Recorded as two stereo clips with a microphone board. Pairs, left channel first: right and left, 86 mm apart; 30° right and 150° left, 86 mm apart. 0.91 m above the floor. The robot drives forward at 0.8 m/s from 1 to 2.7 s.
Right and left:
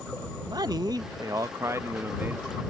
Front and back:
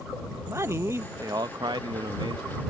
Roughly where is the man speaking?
Left.